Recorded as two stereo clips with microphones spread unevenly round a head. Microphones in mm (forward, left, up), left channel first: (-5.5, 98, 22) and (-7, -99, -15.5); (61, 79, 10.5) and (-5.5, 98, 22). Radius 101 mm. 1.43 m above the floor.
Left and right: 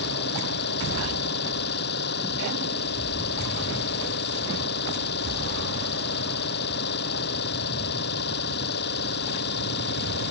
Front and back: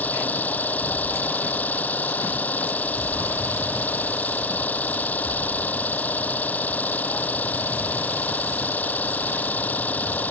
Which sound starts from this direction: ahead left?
An engine running, at 0.0 s.